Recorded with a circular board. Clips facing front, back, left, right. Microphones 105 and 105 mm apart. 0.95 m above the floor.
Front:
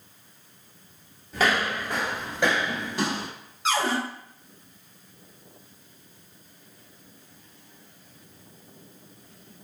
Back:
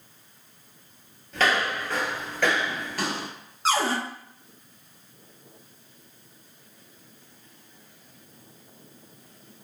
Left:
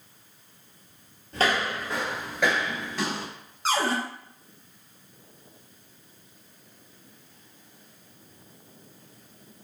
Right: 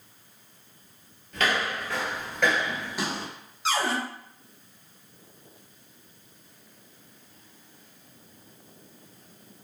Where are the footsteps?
75° left, 1.1 m; by 3.3 s 40° right, 1.0 m.